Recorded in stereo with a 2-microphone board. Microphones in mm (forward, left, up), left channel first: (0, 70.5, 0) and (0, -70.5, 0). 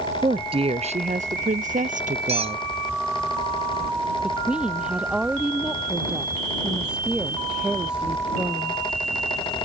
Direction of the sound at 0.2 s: 35° right (ahead or behind).